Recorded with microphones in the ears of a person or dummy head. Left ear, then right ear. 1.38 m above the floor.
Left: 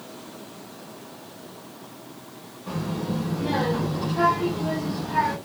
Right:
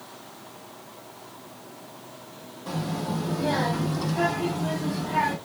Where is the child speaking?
55° right (ahead or behind), 1.5 m; by 5.4 s 35° right (ahead or behind), 1.6 m.